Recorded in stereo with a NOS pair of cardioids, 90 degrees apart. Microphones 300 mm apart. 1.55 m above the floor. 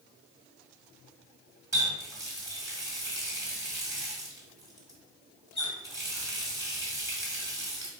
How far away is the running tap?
About 2.0 m.